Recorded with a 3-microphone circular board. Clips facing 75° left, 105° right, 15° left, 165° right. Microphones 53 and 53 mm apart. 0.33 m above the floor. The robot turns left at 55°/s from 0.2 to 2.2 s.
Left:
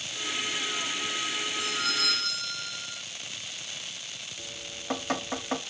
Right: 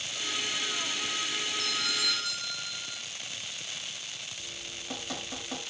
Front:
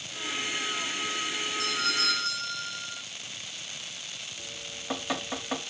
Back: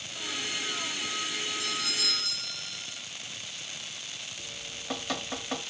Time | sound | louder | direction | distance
1.6 | a doorbell | left 4 dB, front 4 dB | straight ahead | 4 m
4.4 | dripping | left 1 dB, front 1 dB | 90° left | 1.2 m